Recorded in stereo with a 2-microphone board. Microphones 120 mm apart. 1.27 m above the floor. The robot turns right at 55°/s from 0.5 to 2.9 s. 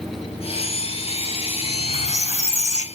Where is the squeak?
40° left, 2.5 m; by 2.9 s 110° left, 2.5 m.